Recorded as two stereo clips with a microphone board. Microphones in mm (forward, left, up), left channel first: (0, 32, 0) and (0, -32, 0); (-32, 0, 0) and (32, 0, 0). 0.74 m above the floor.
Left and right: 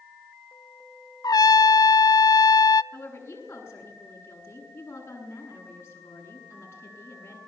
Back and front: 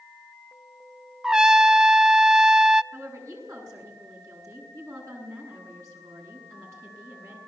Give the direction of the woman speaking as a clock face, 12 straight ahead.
11 o'clock.